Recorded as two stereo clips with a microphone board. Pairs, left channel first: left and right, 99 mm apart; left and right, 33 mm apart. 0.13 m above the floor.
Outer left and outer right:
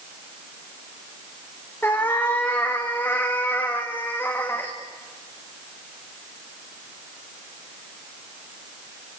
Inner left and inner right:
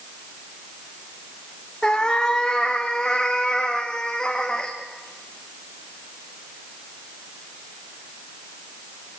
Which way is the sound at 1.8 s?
20° left (ahead or behind).